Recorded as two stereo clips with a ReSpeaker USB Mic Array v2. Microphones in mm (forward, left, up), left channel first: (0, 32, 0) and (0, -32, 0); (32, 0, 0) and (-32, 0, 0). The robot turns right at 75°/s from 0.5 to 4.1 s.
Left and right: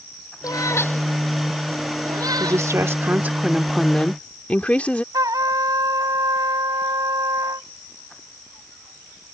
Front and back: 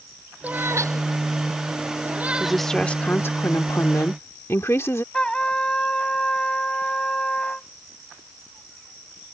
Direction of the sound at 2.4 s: 100° right.